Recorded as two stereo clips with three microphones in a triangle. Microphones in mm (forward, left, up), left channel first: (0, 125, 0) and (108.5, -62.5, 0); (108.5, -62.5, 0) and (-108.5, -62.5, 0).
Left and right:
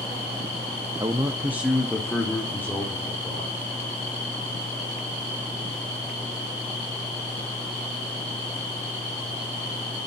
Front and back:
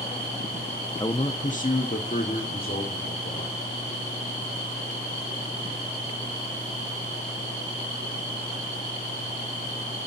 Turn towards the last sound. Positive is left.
turn(degrees=40)